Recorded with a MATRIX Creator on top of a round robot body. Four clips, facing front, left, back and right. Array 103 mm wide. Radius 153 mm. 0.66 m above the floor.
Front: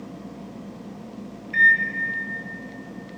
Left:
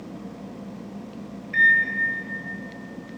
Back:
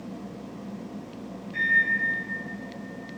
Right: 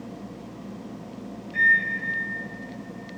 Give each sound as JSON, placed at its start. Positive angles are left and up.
{"t": 1.5, "sound": "a microwave", "azimuth_deg": 45, "distance_m": 0.9}